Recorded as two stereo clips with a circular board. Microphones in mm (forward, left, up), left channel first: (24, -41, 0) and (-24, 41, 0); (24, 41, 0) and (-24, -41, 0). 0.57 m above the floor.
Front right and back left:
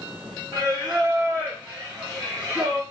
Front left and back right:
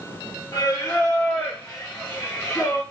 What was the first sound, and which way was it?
Singing, 85° left.